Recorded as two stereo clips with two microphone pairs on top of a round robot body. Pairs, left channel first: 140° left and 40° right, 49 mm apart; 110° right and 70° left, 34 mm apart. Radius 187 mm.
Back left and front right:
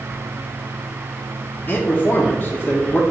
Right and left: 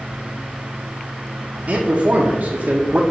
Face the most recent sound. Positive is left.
turn(degrees=95)